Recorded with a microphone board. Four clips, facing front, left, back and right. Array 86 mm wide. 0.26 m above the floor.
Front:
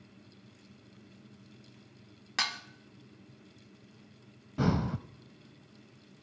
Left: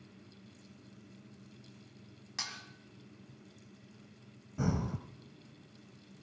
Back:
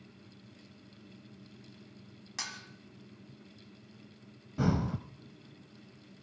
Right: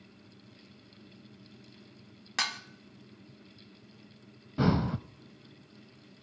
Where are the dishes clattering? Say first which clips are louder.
Right 11 dB, front 9 dB; 50° right, 1.1 m.